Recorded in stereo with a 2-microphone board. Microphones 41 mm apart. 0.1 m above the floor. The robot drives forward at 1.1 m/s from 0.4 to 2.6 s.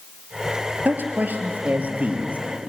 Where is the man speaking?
50° right (ahead or behind), 2 m; by 2.7 s 35° right (ahead or behind), 3 m.